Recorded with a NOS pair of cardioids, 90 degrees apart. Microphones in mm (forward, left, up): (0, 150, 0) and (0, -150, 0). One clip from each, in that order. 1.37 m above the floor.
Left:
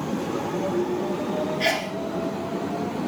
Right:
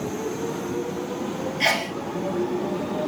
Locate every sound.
1.6 s a sneeze: 15° right, 0.5 m